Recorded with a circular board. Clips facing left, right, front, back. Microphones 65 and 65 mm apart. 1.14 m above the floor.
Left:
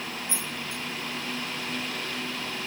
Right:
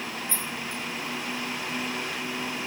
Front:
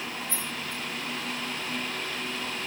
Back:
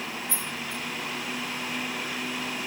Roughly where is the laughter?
No laughter in this recording.